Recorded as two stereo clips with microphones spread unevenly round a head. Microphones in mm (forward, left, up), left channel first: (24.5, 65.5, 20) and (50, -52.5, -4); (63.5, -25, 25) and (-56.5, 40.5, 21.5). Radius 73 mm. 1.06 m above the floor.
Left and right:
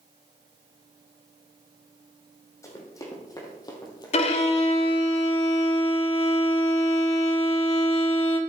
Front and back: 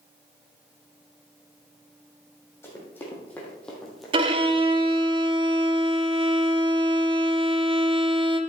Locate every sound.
2.6 s running footsteps: 45° left, 3.5 m; by 5.0 s 90° left, 1.6 m
4.1 s a violin: 100° left, 0.8 m